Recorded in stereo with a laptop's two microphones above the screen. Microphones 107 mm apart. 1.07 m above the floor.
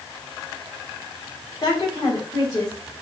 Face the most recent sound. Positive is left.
turn(degrees=40)  # may be behind; listen again after turning